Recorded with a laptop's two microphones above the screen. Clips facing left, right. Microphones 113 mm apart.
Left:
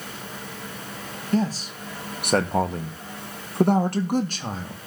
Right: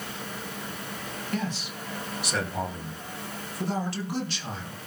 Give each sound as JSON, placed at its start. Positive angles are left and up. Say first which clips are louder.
{"t": 1.3, "sound": "a man speaking", "louder": "left 9 dB", "side_deg": 35, "distance_m": 1.6}